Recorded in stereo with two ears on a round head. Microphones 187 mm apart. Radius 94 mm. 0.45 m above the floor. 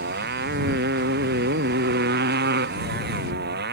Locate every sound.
0.0 s a motorcycle: 50° right (ahead or behind)